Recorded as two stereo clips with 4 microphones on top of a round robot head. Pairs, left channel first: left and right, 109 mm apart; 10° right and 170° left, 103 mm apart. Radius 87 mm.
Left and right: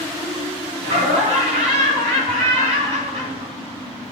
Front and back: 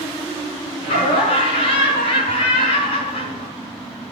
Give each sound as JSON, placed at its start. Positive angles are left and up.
{"t": 0.8, "sound": "laughter", "azimuth_deg": -45, "distance_m": 7.0}